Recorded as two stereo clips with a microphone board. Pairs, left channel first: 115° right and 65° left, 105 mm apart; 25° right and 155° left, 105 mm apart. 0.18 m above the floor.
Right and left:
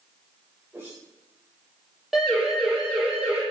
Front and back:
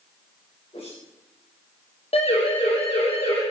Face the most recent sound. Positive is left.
turn(degrees=-15)